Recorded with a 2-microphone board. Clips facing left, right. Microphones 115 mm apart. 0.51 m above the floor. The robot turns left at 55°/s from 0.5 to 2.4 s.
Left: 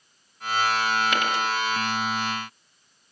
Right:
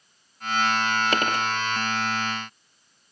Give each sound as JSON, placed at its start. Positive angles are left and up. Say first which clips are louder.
{"t": 1.1, "sound": "a dropped coin", "louder": "right 1 dB", "side_deg": -40, "distance_m": 3.0}